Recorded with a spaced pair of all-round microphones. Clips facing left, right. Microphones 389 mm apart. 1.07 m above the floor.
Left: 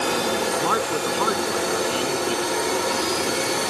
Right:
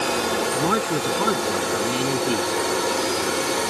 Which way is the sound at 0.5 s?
35° right (ahead or behind).